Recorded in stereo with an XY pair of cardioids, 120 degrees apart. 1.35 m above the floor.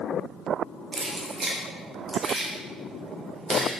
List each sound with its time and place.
0.9 s keys jangling: 30° right, 0.9 m